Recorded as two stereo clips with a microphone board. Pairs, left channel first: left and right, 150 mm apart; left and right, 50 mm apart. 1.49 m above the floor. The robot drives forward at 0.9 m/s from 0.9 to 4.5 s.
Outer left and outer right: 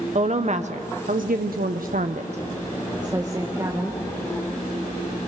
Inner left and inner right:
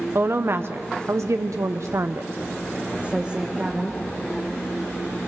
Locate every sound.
0.1 s a woman speaking: 50° right (ahead or behind), 1.0 m; by 4.0 s 20° right (ahead or behind), 2.5 m